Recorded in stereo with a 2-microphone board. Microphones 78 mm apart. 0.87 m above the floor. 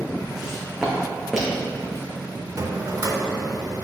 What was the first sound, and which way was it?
Footsteps, 5° right (ahead or behind).